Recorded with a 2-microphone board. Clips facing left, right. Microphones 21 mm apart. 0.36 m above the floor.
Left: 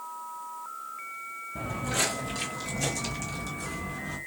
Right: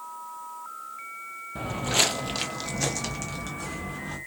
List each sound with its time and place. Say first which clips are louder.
1.6 s footsteps: right 5 dB; 35° right (ahead or behind), 0.6 m; by 4.2 s 30° right (ahead or behind), 1.9 m